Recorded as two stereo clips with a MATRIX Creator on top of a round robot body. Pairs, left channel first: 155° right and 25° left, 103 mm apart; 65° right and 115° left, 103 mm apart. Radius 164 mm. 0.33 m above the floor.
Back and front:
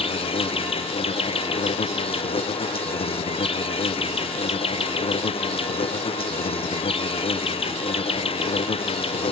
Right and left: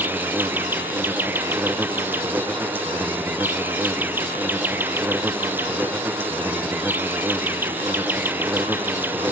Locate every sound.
0.0 s an insect: 175° right, 0.9 m